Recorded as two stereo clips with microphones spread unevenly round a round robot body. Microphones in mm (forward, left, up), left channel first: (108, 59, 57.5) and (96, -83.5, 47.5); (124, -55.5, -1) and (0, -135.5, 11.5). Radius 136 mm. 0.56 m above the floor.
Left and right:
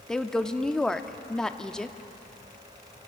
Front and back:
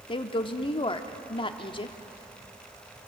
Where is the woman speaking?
5° right, 0.9 m.